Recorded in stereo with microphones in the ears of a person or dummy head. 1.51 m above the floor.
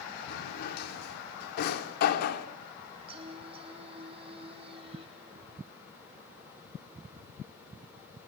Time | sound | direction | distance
0.3 | a drawer | 50° left (ahead or behind) | 2.5 m
3.1 | singing | 30° right (ahead or behind) | 3.5 m